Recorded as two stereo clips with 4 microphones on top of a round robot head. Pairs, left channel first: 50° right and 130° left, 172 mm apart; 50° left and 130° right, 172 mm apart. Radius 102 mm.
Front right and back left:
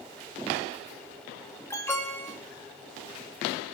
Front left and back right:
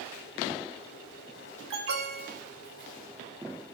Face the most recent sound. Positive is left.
turn(degrees=-130)